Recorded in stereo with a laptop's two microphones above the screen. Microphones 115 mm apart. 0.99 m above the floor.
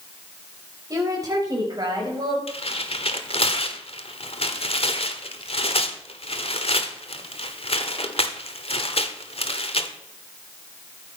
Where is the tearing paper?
55° left (ahead or behind), 1.4 m.